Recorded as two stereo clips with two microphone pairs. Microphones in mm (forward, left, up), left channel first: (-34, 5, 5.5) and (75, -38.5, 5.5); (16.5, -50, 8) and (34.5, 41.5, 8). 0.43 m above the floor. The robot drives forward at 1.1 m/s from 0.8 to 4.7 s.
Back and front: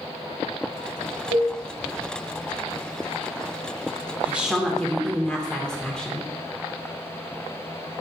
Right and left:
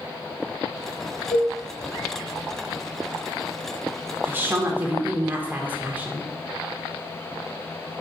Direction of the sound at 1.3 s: 20° right.